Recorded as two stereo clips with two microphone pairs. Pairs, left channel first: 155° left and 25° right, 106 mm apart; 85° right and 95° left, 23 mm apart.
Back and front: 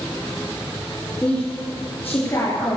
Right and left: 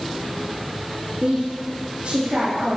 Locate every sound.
1.2 s a woman speaking: 80° left, 3 m; by 2.8 s 95° left, 3 m